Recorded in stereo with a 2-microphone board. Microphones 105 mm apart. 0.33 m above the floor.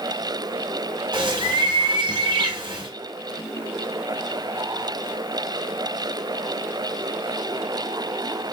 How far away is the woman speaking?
I don't hear a woman speaking.